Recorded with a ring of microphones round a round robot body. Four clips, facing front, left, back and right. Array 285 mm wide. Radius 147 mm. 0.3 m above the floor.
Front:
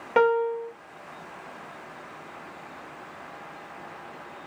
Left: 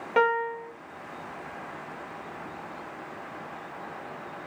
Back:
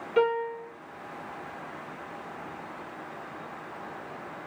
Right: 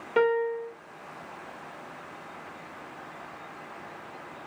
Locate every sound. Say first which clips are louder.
0.2 s a piano: even, front 4 dB; 20° left, 1.1 m